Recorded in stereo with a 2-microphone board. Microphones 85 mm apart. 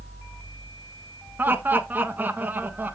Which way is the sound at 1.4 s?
20° right (ahead or behind).